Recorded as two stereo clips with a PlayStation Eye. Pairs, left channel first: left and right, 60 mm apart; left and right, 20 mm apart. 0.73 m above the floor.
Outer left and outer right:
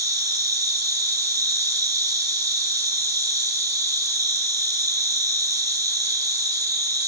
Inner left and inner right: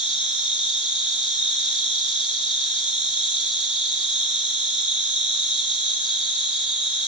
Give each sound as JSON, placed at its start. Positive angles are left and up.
{"t": 0.0, "sound": "an insect", "side_deg": -80, "distance_m": 4.0}